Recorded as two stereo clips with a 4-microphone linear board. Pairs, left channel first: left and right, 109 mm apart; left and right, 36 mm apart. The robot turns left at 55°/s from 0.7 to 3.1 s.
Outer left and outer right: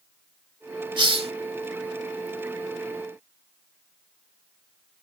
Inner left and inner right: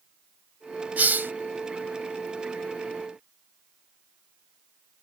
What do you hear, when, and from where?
1.0 s a hiss: 50° right (ahead or behind); by 1.3 s 70° right (ahead or behind)